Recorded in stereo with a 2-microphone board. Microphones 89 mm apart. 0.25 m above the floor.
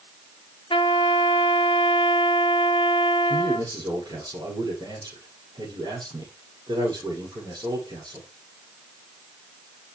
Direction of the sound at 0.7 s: 75° left (ahead or behind).